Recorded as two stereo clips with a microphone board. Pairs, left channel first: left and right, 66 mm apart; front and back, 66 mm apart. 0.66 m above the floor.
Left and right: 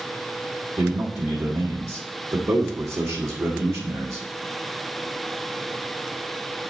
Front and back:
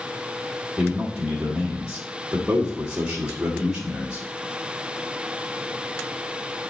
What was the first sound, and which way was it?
A man speaking, 105° right.